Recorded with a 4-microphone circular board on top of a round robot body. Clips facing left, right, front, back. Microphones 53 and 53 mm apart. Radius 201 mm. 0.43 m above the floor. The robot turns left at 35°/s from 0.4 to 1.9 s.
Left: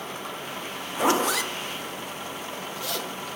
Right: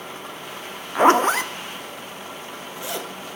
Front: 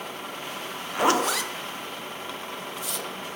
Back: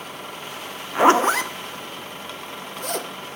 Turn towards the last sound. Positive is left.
turn(degrees=-150)